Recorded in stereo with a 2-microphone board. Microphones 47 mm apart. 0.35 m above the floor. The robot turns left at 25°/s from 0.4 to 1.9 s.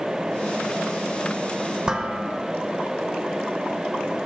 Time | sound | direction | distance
1.9 | dishes clattering | 20° right (ahead or behind) | 0.8 m